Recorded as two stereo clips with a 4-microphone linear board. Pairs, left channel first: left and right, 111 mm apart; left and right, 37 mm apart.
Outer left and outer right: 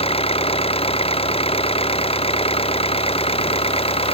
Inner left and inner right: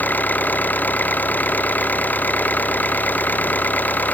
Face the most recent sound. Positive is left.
turn(degrees=60)  # may be behind; listen again after turning